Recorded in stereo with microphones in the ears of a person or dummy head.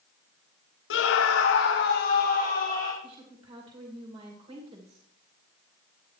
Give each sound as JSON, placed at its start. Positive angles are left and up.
{"t": 0.9, "sound": "a scream", "side_deg": 75, "distance_m": 0.7}
{"t": 3.0, "sound": "a woman speaking", "side_deg": -25, "distance_m": 2.5}